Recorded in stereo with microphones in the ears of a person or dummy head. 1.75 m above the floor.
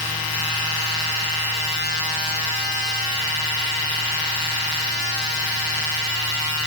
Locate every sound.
Only background noise.